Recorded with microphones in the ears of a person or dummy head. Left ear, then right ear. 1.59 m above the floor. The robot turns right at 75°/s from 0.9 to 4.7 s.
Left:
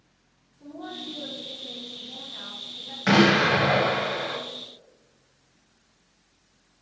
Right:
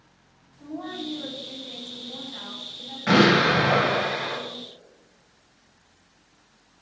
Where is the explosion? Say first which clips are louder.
Right 1 dB; 100° left, 1.1 m; by 4.4 s 160° right, 1.1 m.